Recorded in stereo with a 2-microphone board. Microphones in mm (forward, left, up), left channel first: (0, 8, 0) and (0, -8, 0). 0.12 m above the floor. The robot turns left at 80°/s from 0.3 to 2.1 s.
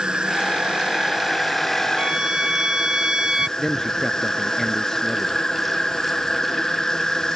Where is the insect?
80° right; by 7.4 s 135° left.